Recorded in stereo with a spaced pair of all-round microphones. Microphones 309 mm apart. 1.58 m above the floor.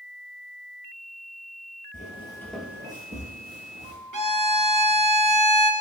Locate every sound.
1.9 s footsteps: 25° left (ahead or behind), 1.8 m; by 4.0 s 40° right (ahead or behind), 2.5 m
4.1 s a violin: 80° right, 0.7 m